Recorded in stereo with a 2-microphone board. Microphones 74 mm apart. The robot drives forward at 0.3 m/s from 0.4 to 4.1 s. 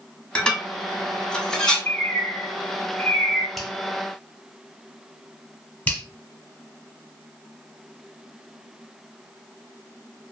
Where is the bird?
25° left (ahead or behind), 0.9 m; by 3.5 s 15° left (ahead or behind), 1.3 m.